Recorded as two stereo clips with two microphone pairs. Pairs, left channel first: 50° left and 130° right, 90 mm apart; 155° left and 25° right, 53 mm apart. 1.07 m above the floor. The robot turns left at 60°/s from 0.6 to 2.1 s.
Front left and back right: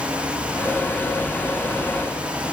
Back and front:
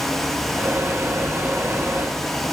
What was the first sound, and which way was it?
Only background noise.